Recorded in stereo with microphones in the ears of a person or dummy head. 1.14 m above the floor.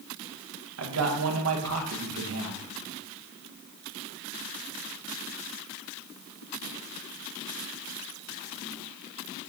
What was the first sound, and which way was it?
A man speaking, 70° right (ahead or behind).